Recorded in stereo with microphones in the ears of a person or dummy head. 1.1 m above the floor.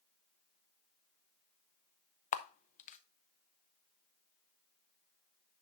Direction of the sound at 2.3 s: 35° left (ahead or behind).